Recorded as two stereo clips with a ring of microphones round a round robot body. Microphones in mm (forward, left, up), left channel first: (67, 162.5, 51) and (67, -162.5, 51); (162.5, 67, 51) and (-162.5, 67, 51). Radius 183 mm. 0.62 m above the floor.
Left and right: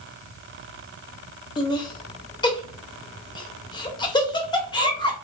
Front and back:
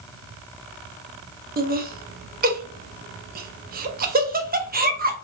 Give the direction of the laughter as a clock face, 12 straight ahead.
7 o'clock.